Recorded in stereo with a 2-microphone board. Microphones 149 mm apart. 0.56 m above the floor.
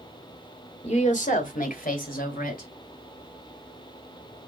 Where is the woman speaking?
45° left (ahead or behind), 1.3 m; by 2.7 s 80° left, 3 m.